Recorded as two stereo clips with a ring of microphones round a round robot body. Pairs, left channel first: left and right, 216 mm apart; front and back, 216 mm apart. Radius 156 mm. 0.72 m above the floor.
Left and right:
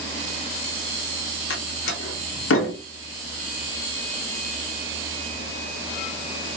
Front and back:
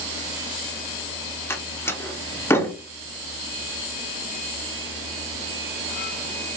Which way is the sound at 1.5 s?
80° left.